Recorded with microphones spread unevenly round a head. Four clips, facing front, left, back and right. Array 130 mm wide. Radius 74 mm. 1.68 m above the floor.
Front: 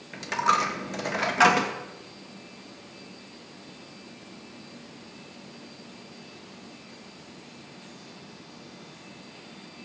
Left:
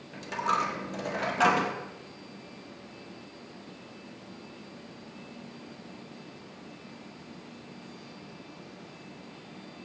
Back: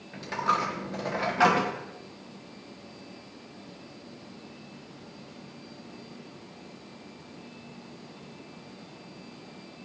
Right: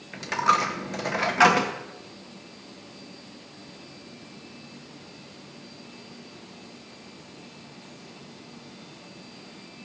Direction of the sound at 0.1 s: 145° right.